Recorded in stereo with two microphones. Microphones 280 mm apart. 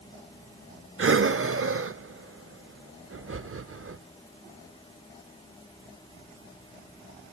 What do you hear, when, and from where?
1.0 s breathing: 50° right (ahead or behind), 0.5 m